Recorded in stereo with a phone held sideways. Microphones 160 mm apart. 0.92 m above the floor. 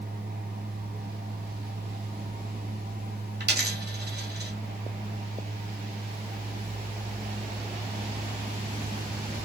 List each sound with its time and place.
0.0 s a fan: 75° right (ahead or behind), 2.5 m
3.4 s a dropped coin: 80° right, 1.7 m